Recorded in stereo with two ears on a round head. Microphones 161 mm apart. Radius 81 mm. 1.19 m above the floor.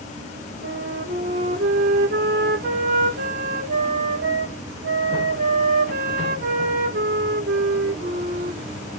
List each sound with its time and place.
0.6 s a flute: 55° right (ahead or behind), 1.0 m